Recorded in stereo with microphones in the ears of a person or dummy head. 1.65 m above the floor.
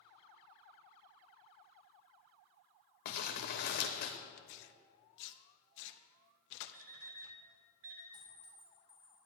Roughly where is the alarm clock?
Right.